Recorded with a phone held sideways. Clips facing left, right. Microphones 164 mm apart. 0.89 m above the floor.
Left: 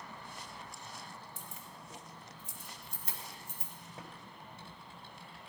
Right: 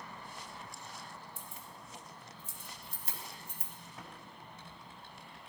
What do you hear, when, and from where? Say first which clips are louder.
1.4 s keys jangling: even; 75° left (ahead or behind), 1.8 m; by 3.7 s 50° left (ahead or behind), 4 m
4.0 s typing on a keyboard: left 1 dB; 35° left (ahead or behind), 1.9 m